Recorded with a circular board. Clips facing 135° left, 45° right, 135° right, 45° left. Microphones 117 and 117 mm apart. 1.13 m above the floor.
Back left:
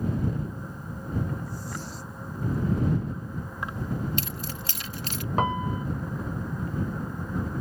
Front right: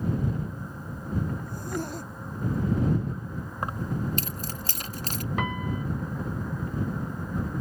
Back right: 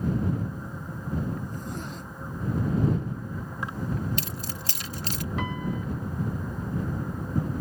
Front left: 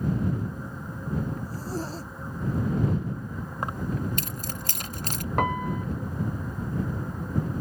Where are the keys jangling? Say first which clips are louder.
Front right 1 dB, front left 2 dB; straight ahead.